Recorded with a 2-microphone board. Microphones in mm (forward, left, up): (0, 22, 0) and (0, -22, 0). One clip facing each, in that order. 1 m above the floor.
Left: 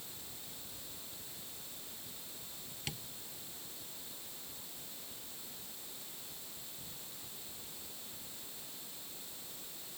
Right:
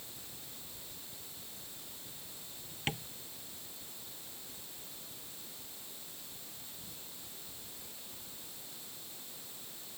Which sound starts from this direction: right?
Tapping, at 2.9 s.